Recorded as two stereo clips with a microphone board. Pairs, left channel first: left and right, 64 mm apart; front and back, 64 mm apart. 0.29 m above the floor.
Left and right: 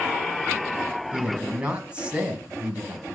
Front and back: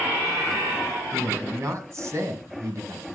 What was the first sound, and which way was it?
A man speaking, 155° right.